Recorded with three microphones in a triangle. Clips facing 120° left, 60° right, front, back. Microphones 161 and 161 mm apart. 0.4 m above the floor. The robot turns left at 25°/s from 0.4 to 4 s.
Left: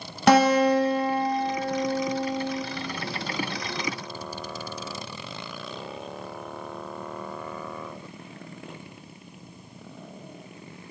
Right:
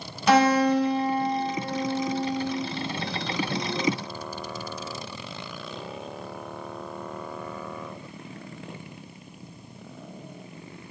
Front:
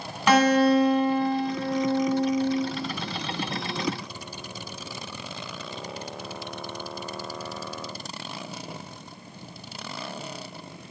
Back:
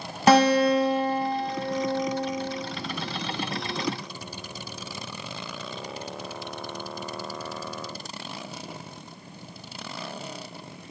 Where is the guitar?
130° left, 1.4 m; by 2.6 s 75° left, 1.4 m.